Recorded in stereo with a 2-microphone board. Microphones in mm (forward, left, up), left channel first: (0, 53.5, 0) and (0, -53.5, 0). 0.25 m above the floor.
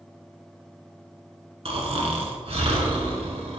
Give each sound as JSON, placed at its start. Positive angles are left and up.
{"t": 1.6, "sound": "snoring", "side_deg": -70, "distance_m": 1.3}